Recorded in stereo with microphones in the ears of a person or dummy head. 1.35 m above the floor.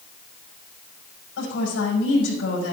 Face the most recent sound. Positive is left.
turn(degrees=85)